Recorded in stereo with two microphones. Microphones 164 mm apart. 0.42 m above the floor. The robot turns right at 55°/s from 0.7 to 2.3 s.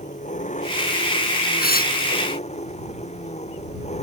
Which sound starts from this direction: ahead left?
An engine running, at 0.0 s.